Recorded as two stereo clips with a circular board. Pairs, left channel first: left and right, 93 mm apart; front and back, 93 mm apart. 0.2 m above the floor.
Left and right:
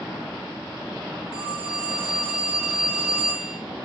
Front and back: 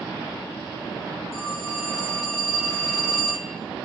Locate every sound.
1.3 s a phone ringing: 55° right, 8 m